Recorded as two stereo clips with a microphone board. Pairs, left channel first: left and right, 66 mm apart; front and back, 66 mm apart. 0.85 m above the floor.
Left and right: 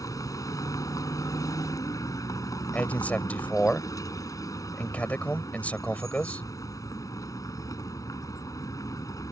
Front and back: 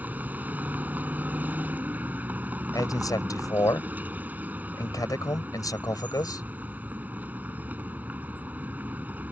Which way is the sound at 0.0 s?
115° left.